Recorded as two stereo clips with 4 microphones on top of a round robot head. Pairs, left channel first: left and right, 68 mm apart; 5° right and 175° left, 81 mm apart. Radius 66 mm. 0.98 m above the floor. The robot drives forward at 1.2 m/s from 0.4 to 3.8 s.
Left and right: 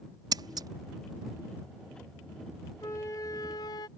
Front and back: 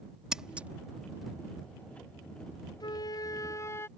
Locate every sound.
0.3 s scissors: 100° right; by 0.7 s 110° right
2.8 s a flute: 30° left; by 3.9 s 55° left